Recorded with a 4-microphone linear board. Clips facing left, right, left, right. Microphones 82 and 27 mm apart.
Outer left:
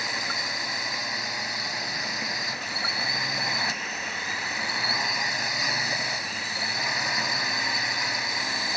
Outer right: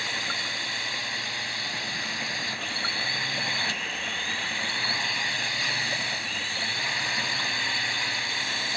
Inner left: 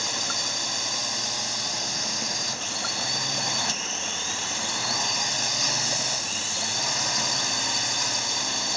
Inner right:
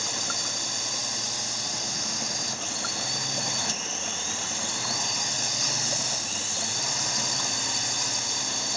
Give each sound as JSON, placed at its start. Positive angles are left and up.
{"t": 0.0, "sound": "a drone", "side_deg": 15}